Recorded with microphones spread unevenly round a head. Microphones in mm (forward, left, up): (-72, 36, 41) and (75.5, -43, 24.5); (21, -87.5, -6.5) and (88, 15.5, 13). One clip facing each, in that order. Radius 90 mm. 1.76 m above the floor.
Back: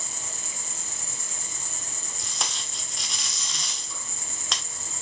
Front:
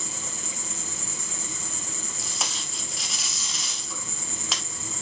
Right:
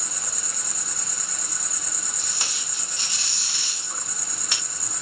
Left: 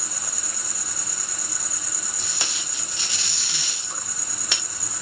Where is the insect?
30° right, 2.5 m.